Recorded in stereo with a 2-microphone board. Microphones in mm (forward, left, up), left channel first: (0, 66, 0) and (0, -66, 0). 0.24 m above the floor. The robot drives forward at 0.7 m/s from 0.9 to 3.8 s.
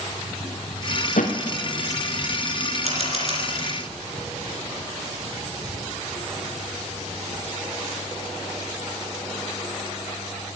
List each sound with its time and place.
1.2 s a thud: 80° left, 2 m; by 1.3 s 75° left (ahead or behind), 2 m
2.9 s a camera shutter: 55° right (ahead or behind), 2.5 m; by 3.4 s 50° right (ahead or behind), 3 m